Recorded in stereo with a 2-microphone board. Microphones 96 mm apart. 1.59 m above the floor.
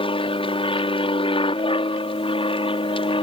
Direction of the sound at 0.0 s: 65° left (ahead or behind).